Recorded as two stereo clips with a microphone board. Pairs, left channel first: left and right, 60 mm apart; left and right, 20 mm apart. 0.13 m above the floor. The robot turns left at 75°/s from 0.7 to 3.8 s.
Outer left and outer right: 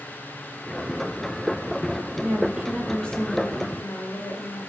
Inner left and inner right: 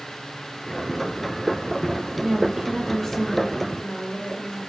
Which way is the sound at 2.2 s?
130° right.